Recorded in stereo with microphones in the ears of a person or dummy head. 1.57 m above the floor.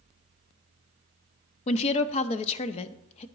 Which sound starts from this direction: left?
A woman speaking, at 1.7 s.